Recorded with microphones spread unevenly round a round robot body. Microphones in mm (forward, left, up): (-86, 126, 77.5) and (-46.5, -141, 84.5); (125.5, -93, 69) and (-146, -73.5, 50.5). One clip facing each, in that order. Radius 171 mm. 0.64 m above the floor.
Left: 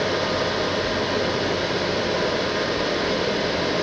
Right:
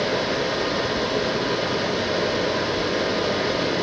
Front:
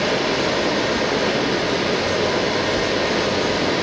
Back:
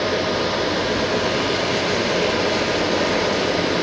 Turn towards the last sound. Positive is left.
No sound to turn to.